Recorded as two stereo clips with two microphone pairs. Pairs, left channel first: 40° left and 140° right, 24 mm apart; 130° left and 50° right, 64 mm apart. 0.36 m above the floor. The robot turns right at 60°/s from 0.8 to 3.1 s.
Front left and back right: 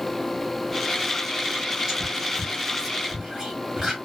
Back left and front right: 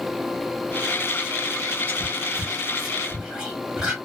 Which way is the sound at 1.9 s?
170° left.